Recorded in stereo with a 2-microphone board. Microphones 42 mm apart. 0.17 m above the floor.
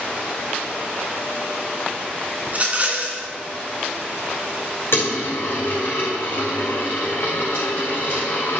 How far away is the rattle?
About 1.4 m.